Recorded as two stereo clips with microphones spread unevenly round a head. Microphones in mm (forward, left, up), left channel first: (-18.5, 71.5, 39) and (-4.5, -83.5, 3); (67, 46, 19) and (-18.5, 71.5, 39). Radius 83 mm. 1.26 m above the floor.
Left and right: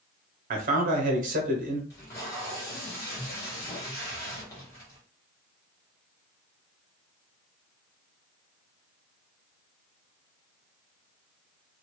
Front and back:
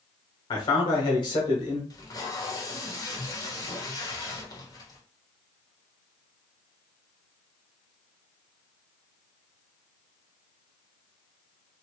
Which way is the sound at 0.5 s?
55° right.